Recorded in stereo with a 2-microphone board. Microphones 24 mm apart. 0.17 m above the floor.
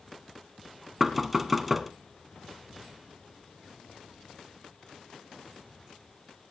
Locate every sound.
1.0 s knocking: 5° right (ahead or behind), 1.1 m